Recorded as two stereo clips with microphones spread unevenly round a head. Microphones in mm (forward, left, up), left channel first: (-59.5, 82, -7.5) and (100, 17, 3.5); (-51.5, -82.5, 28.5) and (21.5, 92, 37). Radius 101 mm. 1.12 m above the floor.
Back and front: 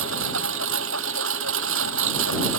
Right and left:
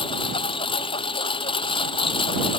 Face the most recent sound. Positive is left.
turn(degrees=-45)